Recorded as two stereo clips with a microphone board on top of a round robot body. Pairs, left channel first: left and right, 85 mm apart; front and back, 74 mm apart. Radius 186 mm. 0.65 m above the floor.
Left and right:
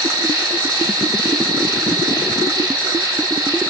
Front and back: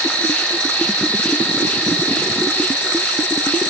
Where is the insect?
60° right, 4 m.